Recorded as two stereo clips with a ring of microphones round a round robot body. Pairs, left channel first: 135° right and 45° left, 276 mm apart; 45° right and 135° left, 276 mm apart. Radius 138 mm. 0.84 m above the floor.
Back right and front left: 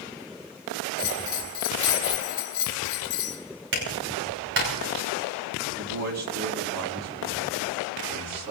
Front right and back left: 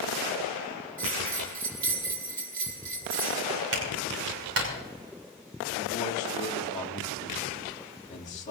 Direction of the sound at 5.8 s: 20° left.